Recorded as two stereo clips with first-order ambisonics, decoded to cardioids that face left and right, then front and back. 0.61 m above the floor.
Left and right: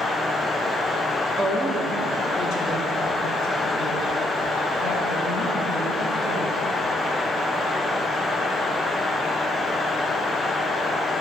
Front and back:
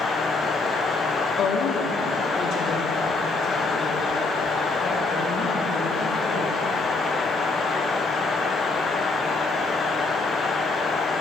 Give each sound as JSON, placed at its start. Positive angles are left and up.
{"t": 1.4, "sound": "a woman speaking", "azimuth_deg": 25, "distance_m": 1.0}